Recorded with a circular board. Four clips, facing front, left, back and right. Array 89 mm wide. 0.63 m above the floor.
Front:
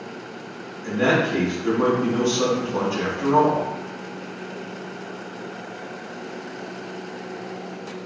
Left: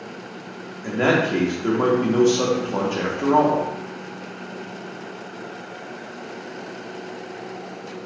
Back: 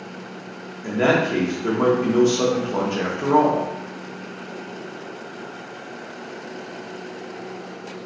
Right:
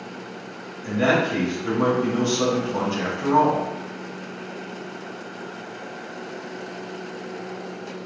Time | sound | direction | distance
0.8 | a man speaking | 130° left | 1.0 m